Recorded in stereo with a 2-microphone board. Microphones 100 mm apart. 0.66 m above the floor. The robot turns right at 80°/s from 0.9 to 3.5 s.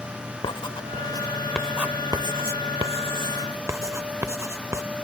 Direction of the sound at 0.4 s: 55° left (ahead or behind).